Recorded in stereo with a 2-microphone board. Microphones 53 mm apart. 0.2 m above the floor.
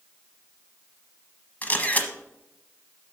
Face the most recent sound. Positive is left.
turn(degrees=30)  # may be behind; listen again after turning